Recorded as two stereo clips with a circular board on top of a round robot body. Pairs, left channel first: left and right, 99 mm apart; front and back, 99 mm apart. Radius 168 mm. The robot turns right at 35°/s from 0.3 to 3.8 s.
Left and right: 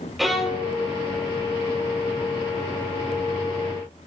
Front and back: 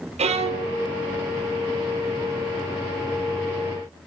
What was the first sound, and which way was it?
A violin, straight behind.